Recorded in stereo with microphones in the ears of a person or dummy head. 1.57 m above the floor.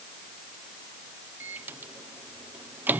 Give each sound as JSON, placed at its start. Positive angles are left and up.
{"t": 1.4, "sound": "a microwave", "side_deg": -5}